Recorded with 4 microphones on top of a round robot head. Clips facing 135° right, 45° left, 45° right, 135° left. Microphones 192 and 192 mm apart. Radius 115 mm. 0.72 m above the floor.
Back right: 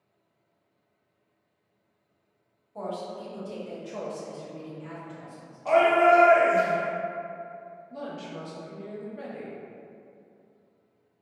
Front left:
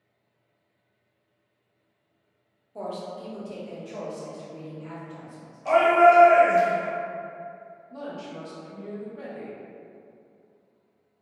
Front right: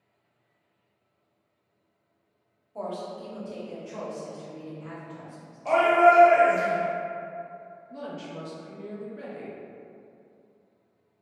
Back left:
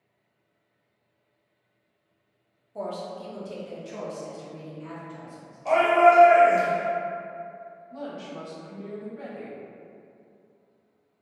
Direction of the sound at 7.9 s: 65° right.